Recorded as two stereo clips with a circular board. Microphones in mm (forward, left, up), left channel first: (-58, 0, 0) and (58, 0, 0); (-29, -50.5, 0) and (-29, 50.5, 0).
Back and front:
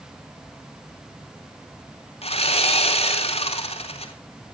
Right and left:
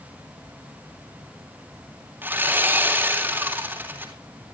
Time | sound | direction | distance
2.2 | sawing | 160° left | 3.5 m